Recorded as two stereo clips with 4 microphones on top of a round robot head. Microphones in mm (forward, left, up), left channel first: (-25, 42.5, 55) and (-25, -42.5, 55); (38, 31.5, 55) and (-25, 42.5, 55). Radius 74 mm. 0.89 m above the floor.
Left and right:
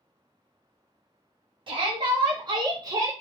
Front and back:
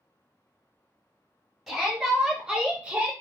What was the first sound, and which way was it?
A shout, 100° right.